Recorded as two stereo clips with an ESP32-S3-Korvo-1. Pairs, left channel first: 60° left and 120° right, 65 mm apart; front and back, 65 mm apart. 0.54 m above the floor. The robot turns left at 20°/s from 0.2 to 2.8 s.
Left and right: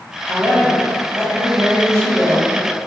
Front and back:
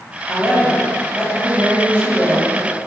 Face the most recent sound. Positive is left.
turn(degrees=-140)